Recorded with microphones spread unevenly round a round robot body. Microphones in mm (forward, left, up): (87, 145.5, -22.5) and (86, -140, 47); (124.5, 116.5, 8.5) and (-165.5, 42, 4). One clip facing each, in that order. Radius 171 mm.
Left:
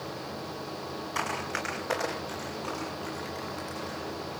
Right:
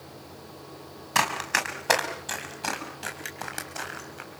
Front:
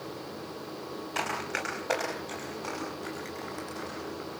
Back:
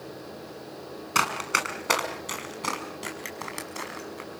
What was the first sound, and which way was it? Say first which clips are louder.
Running footsteps: right 6 dB, back 4 dB; 120° right.